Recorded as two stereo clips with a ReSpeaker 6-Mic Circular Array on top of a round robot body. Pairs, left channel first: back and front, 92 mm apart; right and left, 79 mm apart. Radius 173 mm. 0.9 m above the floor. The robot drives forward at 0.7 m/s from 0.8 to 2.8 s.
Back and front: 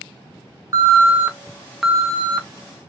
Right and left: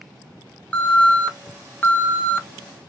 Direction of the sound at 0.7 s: 25° right.